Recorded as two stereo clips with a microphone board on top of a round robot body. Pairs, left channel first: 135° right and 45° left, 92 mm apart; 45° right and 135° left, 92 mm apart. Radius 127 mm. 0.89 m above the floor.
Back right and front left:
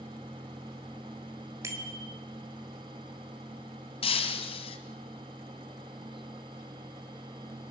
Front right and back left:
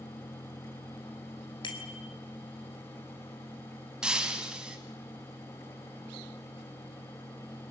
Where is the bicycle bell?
10° right, 3.5 m.